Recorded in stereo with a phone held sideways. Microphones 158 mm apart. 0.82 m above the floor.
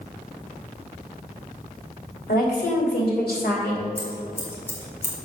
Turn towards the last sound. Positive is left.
turn(degrees=15)  # may be behind; listen again after turning